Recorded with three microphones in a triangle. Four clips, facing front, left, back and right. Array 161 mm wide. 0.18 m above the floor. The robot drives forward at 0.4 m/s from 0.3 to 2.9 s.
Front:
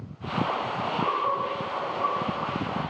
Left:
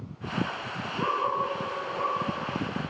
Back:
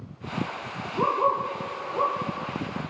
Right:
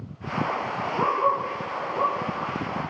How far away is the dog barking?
About 3.5 m.